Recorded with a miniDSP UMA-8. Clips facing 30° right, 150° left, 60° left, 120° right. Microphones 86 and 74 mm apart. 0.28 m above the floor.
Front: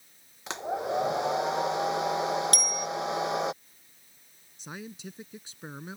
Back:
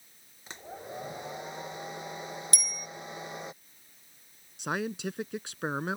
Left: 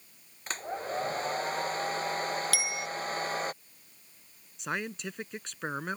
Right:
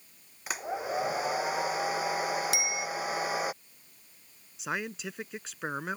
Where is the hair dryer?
40° right.